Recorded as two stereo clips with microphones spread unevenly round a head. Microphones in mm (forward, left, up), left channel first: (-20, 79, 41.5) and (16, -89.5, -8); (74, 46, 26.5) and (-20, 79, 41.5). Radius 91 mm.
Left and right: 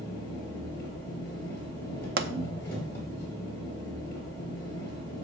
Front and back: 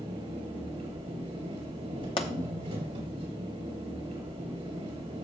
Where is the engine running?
175° left, 5 m.